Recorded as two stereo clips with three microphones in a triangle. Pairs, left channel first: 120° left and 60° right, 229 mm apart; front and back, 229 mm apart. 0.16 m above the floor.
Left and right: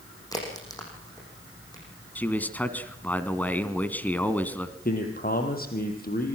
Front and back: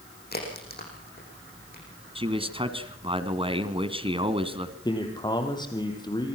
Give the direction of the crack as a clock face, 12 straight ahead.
10 o'clock.